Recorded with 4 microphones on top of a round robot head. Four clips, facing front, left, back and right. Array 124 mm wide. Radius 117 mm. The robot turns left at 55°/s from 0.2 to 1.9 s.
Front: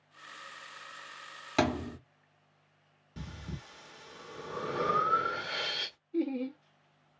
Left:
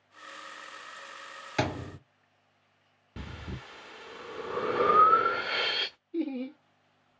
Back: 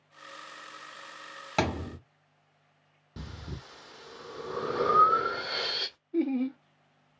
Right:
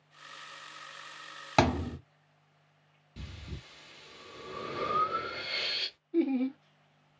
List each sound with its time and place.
1.6 s a thud: 85° right, 1.8 m; by 2.0 s 105° right, 1.8 m
3.2 s breathing: 120° left, 0.6 m
6.1 s laughter: 140° right, 1.1 m